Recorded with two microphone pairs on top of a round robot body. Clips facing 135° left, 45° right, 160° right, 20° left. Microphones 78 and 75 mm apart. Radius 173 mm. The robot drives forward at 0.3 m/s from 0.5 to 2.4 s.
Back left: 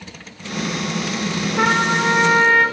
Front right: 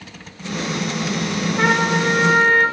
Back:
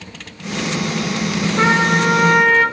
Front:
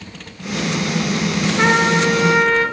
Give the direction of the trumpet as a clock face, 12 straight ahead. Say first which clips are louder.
Back left 1 dB, even; 7 o'clock.